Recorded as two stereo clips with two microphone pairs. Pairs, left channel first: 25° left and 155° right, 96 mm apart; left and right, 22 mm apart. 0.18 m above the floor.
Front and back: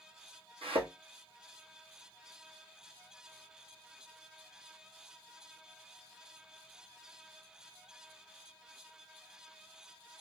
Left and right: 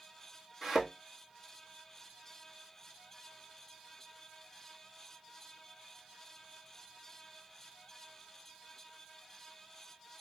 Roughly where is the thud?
Behind.